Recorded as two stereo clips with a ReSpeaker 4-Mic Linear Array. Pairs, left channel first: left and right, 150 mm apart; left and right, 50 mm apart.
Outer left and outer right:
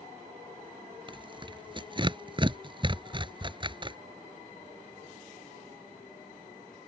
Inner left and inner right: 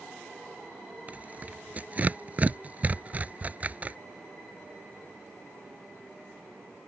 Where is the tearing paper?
35° right (ahead or behind).